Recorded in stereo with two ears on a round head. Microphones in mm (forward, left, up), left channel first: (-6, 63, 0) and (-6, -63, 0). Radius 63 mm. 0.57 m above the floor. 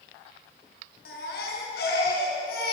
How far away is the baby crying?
About 5.5 m.